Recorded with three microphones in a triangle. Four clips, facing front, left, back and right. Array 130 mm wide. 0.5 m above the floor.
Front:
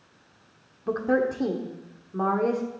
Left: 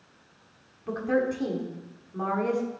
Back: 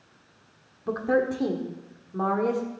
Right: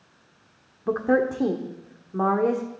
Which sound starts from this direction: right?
A woman speaking, at 0.9 s.